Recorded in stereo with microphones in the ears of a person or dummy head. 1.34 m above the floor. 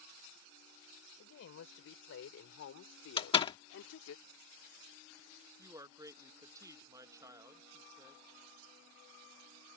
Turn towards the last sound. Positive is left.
turn(degrees=-15)  # may be behind; listen again after turning